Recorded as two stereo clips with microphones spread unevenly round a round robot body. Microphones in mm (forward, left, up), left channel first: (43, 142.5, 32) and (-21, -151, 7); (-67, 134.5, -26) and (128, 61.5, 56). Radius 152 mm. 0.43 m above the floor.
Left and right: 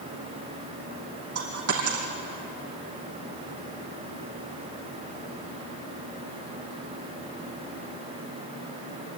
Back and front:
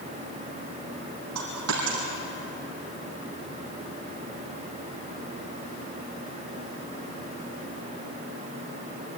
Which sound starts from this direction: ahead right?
A dropped coin, at 1.4 s.